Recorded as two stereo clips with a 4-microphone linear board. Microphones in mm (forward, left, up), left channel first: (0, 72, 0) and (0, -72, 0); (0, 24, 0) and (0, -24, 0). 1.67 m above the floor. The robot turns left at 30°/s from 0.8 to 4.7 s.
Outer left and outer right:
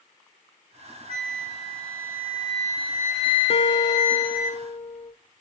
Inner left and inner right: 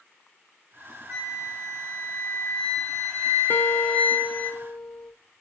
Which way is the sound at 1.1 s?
125° right.